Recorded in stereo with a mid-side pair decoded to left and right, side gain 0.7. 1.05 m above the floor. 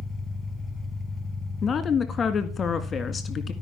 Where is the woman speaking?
30° left, 1.7 m.